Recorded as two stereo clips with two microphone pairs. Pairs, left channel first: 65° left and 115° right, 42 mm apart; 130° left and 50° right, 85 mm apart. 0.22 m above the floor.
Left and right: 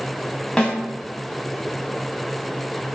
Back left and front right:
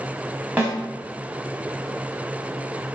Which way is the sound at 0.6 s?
5° left.